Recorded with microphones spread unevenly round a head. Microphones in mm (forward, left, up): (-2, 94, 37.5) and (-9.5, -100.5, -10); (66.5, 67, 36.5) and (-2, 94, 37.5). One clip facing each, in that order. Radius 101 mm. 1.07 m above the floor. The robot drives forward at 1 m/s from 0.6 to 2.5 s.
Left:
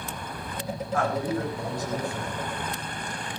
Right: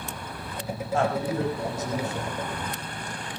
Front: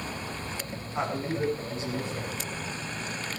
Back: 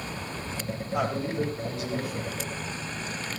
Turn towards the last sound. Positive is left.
turn(degrees=-160)